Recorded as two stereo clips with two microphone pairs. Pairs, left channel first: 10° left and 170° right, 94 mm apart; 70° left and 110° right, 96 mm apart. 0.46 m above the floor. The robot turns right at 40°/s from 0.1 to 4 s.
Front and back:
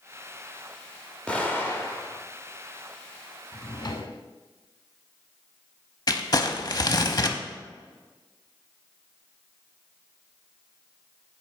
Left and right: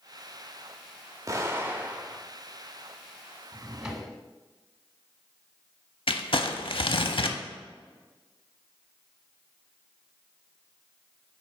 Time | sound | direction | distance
1.3 | an explosion | 65° right | 0.9 m
3.5 | a drawer | 35° right | 0.8 m
6.1 | crumpling | 50° left | 0.5 m